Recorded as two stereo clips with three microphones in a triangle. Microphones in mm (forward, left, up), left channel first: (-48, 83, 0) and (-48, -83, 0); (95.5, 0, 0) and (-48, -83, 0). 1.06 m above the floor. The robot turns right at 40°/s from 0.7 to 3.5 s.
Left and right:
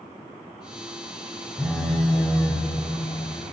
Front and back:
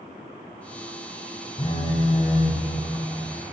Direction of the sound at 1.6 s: 10° right.